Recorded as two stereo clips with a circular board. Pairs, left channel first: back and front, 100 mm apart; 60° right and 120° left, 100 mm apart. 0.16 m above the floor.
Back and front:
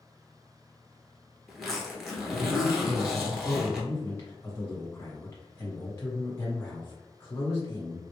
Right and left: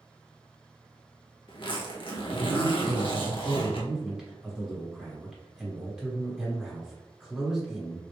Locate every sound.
1.5 s a zipper: 90° right, 1.0 m
2.8 s a man speaking: 165° right, 1.1 m